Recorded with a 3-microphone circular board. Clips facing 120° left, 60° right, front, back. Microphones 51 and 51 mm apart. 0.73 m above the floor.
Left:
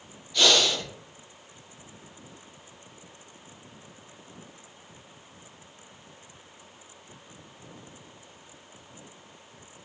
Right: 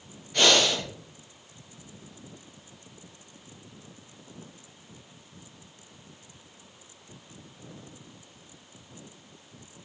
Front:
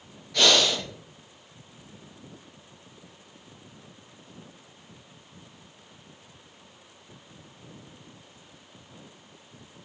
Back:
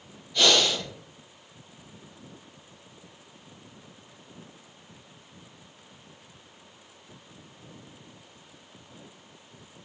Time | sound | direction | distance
0.3 | breathing | 25° right | 4 m